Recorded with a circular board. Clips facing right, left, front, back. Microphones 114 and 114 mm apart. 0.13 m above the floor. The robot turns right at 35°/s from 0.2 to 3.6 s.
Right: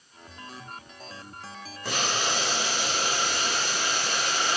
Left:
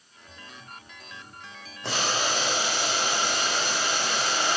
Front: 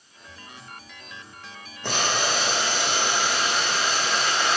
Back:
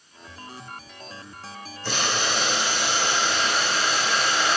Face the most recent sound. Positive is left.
turn(degrees=90)